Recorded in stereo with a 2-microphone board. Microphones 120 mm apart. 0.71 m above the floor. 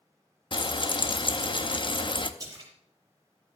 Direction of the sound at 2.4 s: 30° right (ahead or behind).